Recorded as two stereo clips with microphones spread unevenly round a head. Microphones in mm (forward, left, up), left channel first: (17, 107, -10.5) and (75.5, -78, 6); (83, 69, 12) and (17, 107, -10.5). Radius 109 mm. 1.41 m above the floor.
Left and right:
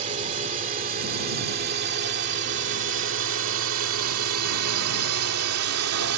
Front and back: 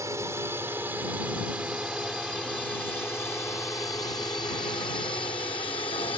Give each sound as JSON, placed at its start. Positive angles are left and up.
{"t": 0.0, "sound": "a drone", "azimuth_deg": -135}